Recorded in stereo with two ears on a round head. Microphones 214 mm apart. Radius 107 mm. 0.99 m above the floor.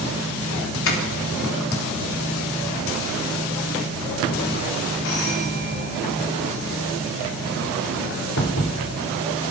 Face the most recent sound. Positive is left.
turn(degrees=60)  # may be behind; listen again after turning